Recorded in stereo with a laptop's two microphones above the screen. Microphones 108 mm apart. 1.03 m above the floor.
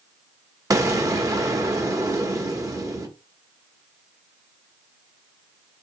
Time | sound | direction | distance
0.7 | an explosion | 35° right (ahead or behind) | 1.2 m